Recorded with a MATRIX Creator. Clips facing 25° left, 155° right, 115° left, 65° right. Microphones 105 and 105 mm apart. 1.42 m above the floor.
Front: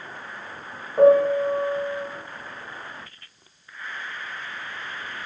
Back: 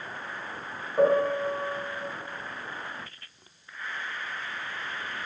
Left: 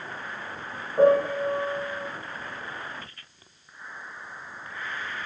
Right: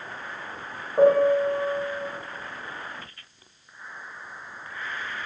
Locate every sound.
1.0 s a piano: 40° right, 1.2 m